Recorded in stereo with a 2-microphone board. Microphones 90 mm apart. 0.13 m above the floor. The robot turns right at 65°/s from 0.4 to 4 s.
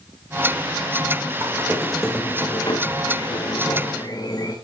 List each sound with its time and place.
1.4 s a squeak: 35° right, 3.5 m; by 4.5 s 135° left, 3.5 m